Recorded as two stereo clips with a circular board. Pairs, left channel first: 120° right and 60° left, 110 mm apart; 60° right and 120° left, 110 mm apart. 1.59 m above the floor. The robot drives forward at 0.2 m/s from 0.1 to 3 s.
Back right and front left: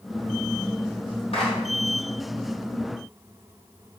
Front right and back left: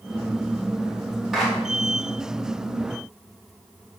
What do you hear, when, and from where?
1.3 s a clap: 155° right, 3 m